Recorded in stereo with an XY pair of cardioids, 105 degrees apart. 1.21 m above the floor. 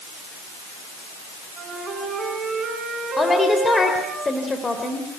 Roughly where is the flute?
Ahead right.